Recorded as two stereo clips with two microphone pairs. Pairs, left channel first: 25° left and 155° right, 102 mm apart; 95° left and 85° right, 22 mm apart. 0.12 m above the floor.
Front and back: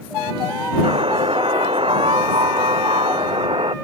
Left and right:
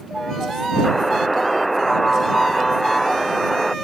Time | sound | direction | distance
0.8 | a buzzer | straight behind | ?